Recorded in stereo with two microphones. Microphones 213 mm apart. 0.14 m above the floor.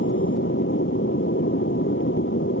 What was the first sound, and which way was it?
An aircraft, 65° left (ahead or behind).